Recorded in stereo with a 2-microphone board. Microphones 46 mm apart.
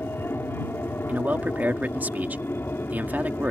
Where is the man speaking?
40° right (ahead or behind).